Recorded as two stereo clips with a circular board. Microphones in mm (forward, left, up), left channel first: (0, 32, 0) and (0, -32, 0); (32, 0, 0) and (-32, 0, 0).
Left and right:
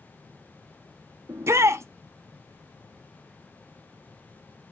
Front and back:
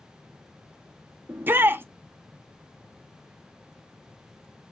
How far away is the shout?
About 0.5 m.